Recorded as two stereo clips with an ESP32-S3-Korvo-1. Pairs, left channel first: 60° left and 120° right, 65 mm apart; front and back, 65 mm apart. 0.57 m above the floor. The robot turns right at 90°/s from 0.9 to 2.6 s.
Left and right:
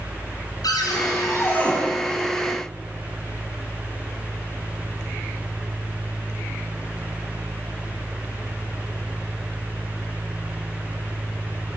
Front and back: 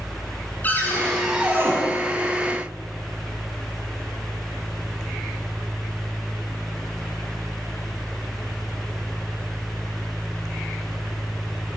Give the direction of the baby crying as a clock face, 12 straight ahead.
I don't hear a baby crying.